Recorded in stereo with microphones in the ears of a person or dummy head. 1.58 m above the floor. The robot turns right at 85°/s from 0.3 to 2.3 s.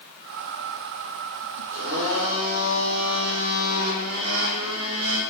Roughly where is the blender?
Behind right.